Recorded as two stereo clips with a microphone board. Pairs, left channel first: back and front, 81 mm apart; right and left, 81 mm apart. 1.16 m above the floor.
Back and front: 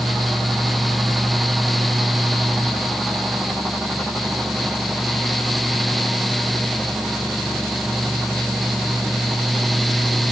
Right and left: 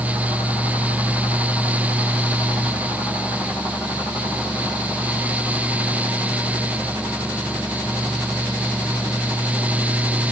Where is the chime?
I don't hear a chime.